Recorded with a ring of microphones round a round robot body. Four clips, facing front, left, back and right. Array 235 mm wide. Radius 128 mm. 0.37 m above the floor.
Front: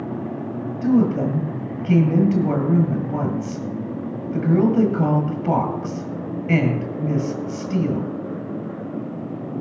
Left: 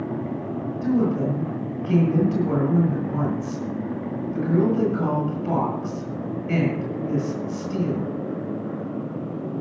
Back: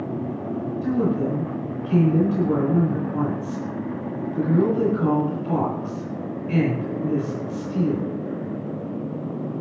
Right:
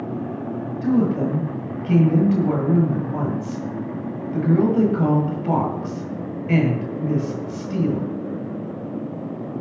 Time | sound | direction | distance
0.8 | a woman speaking | 30° right | 9.5 m